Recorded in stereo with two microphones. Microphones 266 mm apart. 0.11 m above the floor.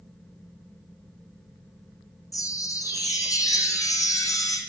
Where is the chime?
10° left (ahead or behind), 1.4 m.